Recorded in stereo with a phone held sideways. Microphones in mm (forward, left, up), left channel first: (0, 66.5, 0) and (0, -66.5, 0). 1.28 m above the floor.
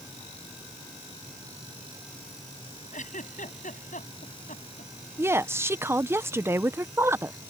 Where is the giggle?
75° left (ahead or behind).